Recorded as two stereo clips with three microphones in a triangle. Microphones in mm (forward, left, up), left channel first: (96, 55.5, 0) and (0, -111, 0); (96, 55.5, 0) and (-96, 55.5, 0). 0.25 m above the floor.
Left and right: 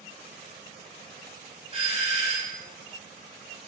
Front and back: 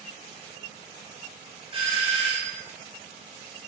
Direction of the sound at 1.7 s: 145° right.